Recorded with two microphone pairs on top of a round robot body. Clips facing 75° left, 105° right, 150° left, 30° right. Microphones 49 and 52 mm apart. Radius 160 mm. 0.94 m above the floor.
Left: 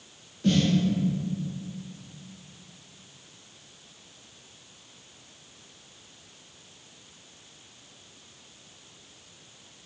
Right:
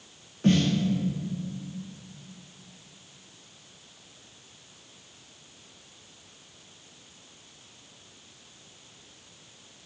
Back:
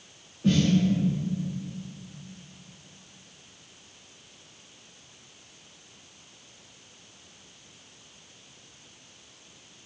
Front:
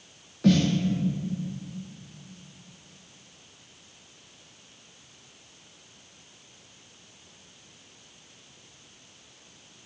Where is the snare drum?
55° right, 0.5 m.